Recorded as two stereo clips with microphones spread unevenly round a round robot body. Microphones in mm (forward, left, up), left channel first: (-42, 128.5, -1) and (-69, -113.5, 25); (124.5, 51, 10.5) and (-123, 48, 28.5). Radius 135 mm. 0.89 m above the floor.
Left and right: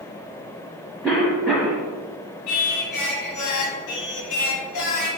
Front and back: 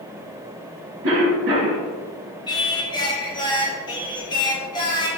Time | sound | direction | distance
1.0 | a cough | 155° left | 1.2 m
2.5 | singing | 75° left | 0.9 m